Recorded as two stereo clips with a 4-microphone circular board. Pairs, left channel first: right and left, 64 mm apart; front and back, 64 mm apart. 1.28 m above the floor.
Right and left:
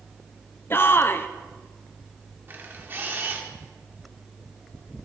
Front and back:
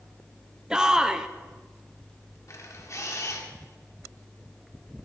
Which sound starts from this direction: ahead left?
A camera shutter, at 2.5 s.